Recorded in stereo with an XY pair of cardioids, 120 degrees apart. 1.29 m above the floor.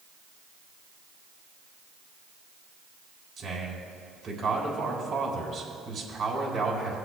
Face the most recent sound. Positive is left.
turn(degrees=-50)